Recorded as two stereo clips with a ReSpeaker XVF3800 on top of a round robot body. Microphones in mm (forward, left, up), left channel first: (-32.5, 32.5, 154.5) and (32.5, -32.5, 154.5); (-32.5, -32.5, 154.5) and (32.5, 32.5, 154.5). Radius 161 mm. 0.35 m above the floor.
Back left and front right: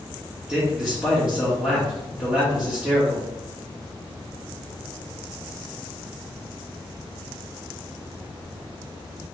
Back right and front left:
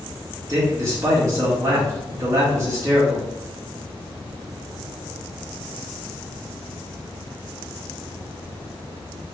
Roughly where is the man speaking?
Ahead left.